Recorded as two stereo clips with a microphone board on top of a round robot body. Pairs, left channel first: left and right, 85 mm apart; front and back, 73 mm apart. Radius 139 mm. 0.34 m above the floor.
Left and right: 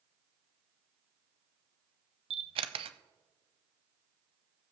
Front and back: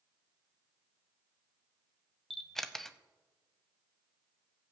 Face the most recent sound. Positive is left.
turn(degrees=-85)